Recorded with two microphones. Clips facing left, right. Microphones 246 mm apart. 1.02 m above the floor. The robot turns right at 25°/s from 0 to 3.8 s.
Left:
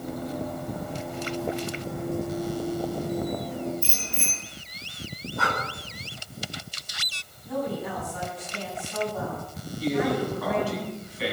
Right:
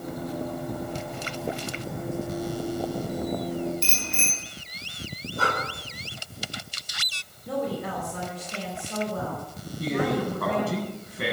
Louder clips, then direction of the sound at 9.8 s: Left 1 dB; 55° right (ahead or behind).